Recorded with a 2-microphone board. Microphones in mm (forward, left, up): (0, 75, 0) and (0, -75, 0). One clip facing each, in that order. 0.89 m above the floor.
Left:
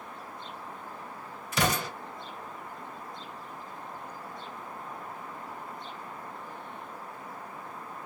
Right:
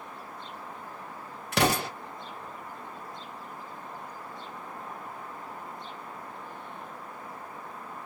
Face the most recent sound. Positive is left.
turn(degrees=-75)  # may be behind; listen again after turning